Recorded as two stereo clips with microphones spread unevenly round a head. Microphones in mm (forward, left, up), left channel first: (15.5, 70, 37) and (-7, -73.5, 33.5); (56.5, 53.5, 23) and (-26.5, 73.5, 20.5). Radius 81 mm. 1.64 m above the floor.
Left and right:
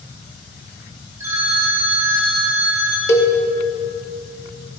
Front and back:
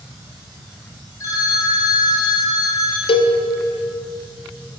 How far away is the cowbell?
About 0.7 m.